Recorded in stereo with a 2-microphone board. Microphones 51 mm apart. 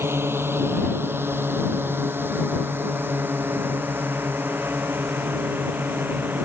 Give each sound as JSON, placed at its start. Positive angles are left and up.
{"t": 0.0, "sound": "a drone", "side_deg": -55}